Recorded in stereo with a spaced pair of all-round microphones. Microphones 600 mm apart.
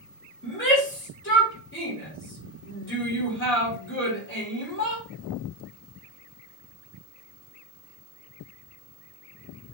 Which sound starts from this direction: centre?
A shout, at 0.4 s.